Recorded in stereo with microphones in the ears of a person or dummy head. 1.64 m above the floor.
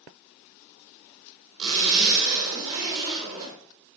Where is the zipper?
30° right (ahead or behind), 3 m.